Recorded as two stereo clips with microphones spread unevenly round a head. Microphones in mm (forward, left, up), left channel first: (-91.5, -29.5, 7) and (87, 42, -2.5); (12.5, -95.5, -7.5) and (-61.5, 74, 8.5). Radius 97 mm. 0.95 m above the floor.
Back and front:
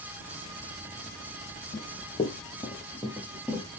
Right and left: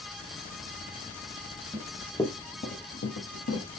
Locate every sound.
1.7 s running footsteps: 175° left, 1.2 m; by 3.7 s 65° right, 2 m